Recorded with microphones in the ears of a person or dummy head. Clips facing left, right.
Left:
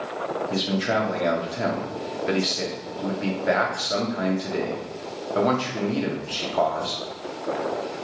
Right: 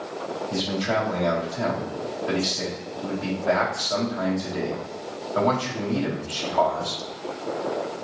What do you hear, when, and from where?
0.5 s a man speaking: 20° left (ahead or behind), 1.0 m